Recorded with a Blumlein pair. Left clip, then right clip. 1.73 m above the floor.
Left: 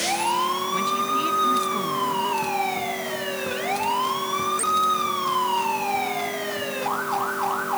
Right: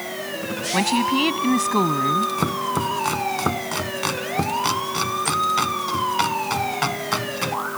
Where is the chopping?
55° right.